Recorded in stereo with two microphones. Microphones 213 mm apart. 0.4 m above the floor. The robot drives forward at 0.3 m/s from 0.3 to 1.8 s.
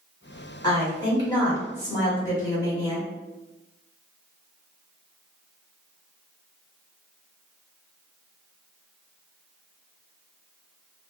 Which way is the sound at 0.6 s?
20° left (ahead or behind).